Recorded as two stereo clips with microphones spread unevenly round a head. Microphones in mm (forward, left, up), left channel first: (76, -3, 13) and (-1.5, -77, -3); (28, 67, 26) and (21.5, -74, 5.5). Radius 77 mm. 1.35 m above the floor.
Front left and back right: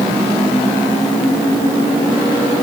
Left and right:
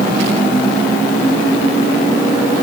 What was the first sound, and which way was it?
Only background noise.